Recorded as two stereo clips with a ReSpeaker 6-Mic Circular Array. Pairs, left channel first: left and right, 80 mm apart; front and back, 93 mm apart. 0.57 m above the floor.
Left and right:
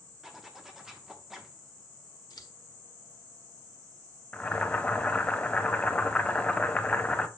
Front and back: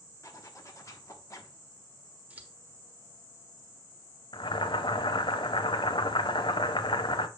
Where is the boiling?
15° left, 0.6 m.